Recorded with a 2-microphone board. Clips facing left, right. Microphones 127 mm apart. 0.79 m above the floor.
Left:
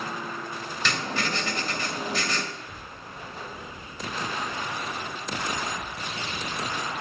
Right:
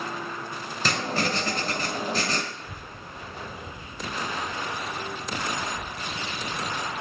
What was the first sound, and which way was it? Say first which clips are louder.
Writing: right 3 dB; 40° right (ahead or behind).